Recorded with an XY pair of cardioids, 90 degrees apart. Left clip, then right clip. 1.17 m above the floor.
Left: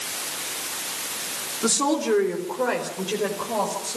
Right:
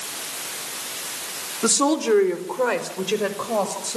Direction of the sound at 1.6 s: 40° right.